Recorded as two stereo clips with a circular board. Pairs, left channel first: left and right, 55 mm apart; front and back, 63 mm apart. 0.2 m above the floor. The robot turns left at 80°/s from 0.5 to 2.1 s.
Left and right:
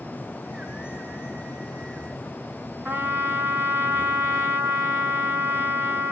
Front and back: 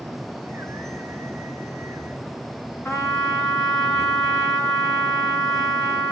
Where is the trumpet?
50° right, 3 m.